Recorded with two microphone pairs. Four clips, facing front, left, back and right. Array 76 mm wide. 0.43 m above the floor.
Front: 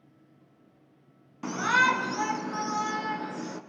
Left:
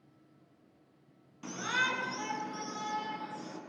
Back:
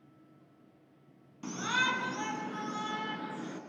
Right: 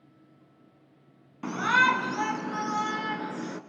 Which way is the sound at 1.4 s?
55° right.